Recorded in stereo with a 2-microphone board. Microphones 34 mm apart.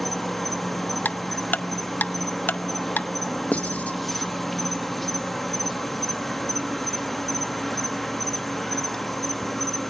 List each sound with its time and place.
0.0 s an insect: 5° left (ahead or behind), 0.8 m
1.1 s ticking: 60° left (ahead or behind), 0.6 m
3.5 s writing: 45° left (ahead or behind), 1.5 m